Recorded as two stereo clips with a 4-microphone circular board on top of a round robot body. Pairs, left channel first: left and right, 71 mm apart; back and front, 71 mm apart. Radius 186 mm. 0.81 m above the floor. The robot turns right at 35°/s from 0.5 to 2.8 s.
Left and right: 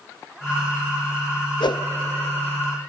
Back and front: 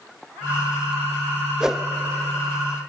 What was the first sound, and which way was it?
A whoosh, 80° left.